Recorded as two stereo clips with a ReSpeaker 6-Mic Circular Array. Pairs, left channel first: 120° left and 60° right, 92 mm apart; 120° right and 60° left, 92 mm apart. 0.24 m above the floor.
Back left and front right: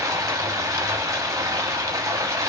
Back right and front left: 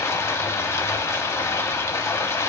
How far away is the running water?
About 0.7 m.